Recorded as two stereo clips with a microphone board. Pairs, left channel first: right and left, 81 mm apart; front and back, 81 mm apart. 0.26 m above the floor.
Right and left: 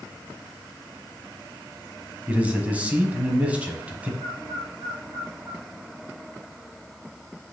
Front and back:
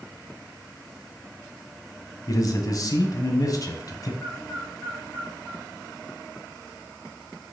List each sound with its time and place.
2.3 s a man speaking: 20° left, 1.4 m
4.2 s a bird: 80° left, 2.0 m